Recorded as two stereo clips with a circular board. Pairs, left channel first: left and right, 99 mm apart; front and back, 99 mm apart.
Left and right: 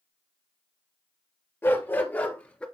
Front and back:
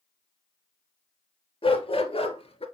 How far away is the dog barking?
About 2.5 m.